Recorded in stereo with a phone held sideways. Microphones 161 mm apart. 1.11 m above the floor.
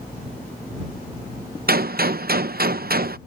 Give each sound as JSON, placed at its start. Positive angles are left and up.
{"t": 1.7, "sound": "a gunshot", "side_deg": -70}